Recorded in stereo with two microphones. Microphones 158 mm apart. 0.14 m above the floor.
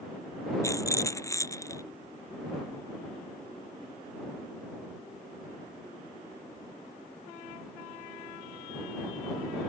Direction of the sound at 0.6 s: 20° left (ahead or behind).